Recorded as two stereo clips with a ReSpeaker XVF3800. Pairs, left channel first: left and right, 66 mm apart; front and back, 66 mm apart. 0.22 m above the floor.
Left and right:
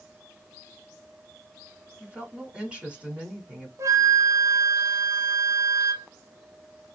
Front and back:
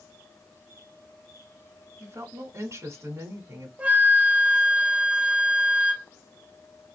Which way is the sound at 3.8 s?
115° right.